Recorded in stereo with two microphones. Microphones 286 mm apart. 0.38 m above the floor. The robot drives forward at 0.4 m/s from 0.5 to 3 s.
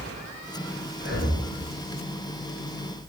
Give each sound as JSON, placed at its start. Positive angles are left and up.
{"t": 1.0, "sound": "breathing", "side_deg": 40, "distance_m": 1.1}